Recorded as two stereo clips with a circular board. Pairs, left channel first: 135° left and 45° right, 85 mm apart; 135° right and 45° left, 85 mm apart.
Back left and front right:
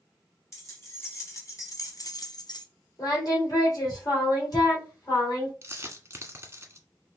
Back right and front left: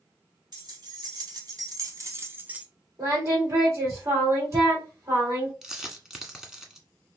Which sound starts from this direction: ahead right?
A dropped coin, at 5.6 s.